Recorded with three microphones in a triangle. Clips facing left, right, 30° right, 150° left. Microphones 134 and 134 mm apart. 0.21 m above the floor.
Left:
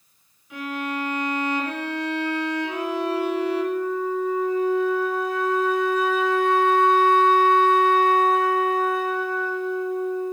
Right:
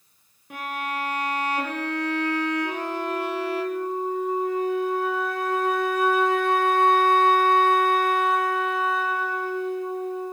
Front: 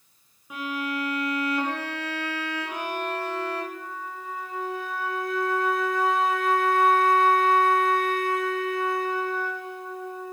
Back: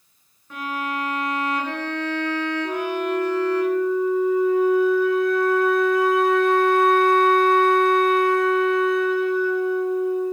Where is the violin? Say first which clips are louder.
Left 2 dB, back 2 dB; 110° right, 3 m.